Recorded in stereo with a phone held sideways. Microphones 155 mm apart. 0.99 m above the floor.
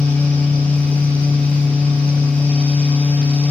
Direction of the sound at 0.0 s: 10° left (ahead or behind).